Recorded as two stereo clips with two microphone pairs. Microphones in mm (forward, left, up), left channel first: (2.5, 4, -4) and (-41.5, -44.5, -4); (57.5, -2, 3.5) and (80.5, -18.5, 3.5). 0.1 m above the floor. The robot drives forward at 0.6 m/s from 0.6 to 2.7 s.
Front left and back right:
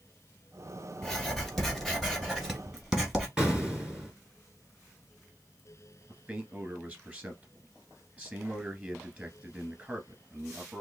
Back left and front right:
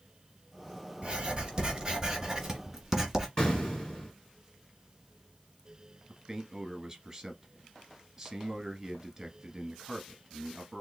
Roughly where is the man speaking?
Right.